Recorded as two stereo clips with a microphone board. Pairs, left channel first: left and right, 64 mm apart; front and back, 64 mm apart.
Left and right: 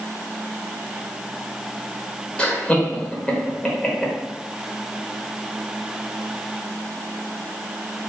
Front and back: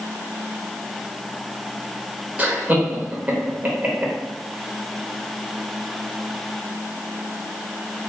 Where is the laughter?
145° left, 0.9 m.